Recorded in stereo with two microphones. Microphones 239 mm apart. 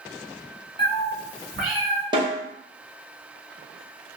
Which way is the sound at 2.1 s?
20° right (ahead or behind).